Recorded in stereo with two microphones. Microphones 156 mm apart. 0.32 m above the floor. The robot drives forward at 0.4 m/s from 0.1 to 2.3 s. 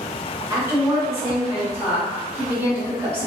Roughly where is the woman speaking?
Centre.